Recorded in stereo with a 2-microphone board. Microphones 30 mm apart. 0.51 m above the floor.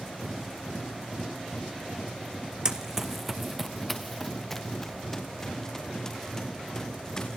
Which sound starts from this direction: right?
Running footsteps, at 2.6 s.